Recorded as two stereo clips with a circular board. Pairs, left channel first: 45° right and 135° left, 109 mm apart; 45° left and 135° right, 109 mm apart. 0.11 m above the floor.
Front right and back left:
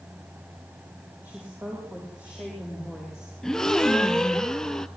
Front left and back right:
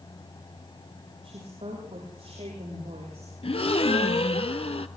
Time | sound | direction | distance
1.2 | a woman speaking | 150° right | 7.5 m
3.4 | a gasp | 40° left | 0.6 m